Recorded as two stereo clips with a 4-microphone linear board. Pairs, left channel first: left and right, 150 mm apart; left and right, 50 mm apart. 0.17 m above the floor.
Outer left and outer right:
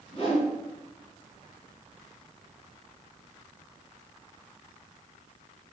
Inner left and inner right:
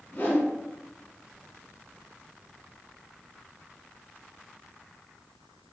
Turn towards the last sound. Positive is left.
turn(degrees=40)  # may be behind; listen again after turning